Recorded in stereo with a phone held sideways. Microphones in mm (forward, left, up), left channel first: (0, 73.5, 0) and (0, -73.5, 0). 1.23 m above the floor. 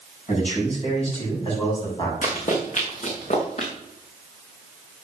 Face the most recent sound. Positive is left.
turn(degrees=50)  # may be behind; listen again after turning